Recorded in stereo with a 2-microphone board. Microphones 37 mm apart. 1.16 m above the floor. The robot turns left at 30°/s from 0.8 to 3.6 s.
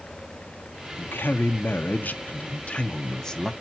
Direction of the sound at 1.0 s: 90° left.